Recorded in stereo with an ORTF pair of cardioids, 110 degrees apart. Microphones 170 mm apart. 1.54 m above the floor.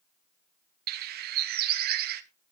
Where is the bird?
70° right, 1.1 m.